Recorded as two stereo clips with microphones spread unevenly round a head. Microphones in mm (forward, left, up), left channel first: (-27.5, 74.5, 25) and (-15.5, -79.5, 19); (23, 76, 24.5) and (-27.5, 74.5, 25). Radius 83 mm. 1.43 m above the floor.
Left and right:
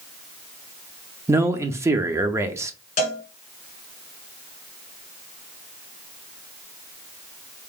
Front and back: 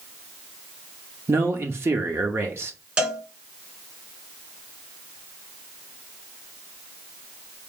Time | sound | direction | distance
1.3 | a man speaking | 155° right | 0.6 m
3.0 | a cowbell | 120° left | 1.5 m